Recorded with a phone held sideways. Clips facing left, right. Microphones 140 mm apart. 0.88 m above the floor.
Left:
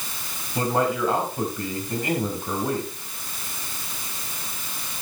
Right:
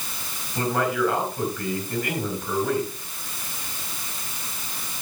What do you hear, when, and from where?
0.6 s a man speaking: 25° left (ahead or behind), 4 m